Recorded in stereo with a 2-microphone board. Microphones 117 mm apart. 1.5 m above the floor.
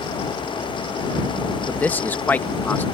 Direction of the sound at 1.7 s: 15° left (ahead or behind).